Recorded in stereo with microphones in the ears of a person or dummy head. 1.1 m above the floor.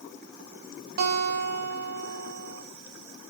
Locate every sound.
1.0 s a guitar: 50° right (ahead or behind), 1.0 m